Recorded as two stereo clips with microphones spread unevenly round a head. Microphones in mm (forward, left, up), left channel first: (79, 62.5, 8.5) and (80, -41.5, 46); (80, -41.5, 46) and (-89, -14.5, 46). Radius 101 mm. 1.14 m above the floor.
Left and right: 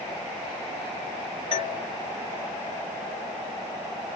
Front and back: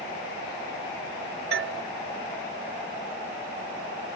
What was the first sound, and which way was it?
A doorbell, 140° left.